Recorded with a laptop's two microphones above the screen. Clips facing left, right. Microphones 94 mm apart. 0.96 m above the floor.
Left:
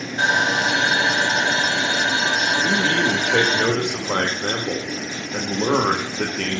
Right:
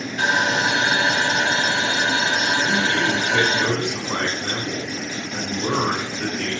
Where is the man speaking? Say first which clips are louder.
Left 1 dB; 70° left (ahead or behind), 1.4 m.